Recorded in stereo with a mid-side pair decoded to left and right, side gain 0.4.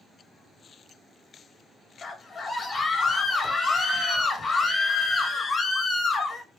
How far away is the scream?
About 1.0 m.